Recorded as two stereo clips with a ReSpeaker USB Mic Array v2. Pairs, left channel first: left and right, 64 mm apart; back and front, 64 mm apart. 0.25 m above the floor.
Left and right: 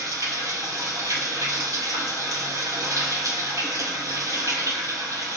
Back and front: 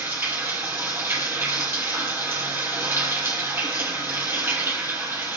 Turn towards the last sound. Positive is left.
turn(degrees=-55)